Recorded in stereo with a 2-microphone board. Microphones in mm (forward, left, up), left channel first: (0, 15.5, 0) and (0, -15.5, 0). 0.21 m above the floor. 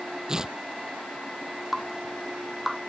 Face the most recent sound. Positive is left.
turn(degrees=-5)  # may be behind; listen again after turning